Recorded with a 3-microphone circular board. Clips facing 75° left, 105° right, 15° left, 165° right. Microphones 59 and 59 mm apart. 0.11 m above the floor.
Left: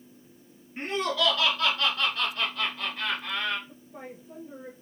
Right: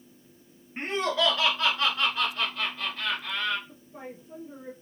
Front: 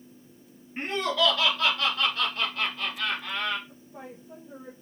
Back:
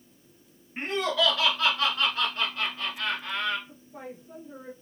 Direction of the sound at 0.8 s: 100° right.